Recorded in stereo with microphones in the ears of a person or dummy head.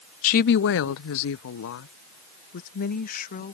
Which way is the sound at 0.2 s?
40° left (ahead or behind).